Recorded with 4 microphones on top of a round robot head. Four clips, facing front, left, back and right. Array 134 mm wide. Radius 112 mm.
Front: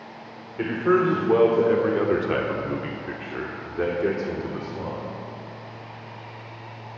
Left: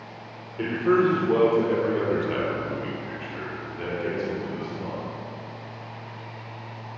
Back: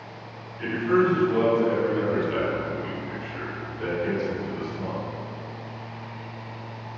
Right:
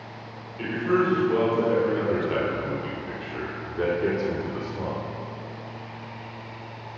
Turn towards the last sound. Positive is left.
turn(degrees=-45)